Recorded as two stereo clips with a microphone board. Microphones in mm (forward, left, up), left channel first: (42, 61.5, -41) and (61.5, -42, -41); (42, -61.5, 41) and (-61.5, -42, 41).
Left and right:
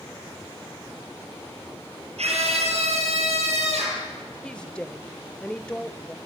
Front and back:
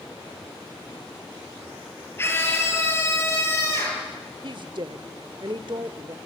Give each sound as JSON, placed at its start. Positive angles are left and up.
{"t": 2.2, "sound": "a scream", "azimuth_deg": -80, "distance_m": 7.5}
{"t": 4.4, "sound": "a woman speaking", "azimuth_deg": 175, "distance_m": 1.1}